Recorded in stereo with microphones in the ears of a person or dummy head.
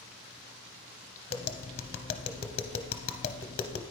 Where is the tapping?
30° left (ahead or behind), 0.7 m.